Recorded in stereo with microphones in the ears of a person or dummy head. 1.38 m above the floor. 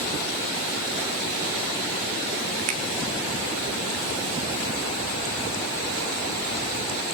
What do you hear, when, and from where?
2.7 s a finger snap: 45° right (ahead or behind), 1.3 m